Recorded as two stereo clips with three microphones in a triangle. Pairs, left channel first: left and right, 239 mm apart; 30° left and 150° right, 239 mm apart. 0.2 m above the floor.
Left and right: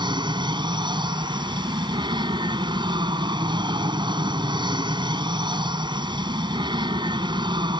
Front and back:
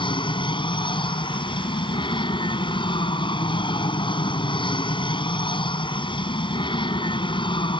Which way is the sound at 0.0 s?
30° right.